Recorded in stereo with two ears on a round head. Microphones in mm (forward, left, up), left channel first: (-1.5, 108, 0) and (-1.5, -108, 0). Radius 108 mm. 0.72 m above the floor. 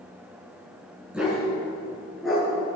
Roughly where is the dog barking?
Centre.